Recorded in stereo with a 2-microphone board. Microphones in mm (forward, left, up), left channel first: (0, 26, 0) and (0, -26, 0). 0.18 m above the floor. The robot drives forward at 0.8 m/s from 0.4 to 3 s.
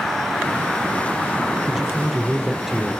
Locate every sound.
1.7 s a man speaking: 5° right (ahead or behind), 2 m